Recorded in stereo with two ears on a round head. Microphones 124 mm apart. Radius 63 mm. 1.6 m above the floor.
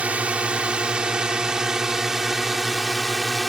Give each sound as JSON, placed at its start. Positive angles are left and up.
{"t": 0.0, "sound": "a drone", "side_deg": -10}